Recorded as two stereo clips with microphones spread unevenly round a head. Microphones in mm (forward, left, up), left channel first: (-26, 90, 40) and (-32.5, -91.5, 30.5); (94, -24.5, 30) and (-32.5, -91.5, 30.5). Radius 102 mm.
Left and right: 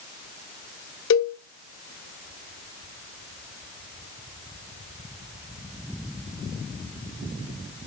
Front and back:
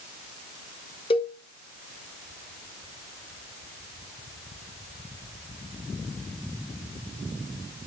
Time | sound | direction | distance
1.1 | a cowbell | 95° left | 0.6 m